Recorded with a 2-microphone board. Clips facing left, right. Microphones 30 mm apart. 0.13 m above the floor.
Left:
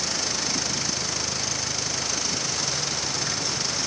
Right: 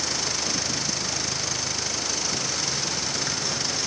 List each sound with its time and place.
Only background noise.